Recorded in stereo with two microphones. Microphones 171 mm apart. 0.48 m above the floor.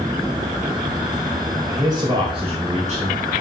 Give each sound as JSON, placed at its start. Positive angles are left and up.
{"t": 1.7, "sound": "a man speaking", "side_deg": -20, "distance_m": 2.5}